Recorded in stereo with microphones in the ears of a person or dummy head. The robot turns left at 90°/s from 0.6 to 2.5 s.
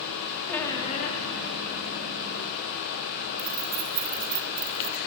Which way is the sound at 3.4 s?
50° right (ahead or behind).